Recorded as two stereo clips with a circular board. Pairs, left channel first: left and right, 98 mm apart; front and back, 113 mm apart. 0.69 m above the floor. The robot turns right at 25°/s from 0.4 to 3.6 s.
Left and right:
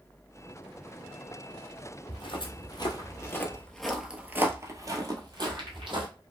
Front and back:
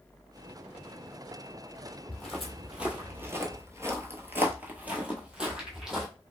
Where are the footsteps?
75° left, 1.2 m; by 6.1 s 95° right, 1.3 m.